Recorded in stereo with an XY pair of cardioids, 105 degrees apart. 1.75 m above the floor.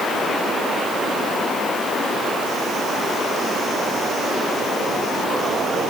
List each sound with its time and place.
Only background noise.